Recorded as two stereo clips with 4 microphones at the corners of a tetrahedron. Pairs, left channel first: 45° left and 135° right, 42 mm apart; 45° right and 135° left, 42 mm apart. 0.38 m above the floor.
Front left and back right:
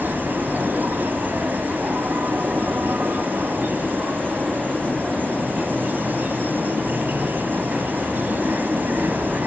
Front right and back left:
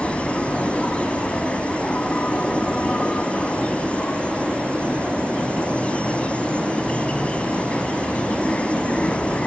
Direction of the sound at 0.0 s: 105° right.